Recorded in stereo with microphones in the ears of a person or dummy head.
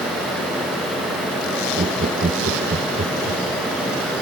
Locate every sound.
1.8 s laughter: 35° right (ahead or behind)